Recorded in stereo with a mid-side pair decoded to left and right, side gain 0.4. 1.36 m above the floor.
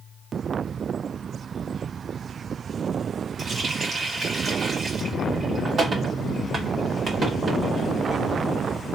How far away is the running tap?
About 1.7 m.